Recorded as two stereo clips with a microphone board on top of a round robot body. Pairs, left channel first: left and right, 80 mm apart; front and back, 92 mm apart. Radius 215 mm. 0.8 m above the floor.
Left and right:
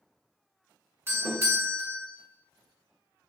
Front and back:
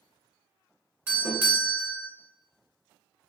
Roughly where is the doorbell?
Behind right.